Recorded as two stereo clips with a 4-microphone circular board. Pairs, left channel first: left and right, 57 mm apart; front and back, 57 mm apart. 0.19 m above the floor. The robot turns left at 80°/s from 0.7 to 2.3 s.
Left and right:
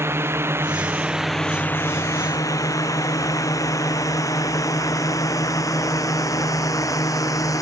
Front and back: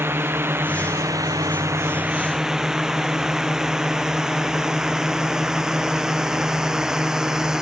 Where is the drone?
135° right; by 7.6 s 100° left.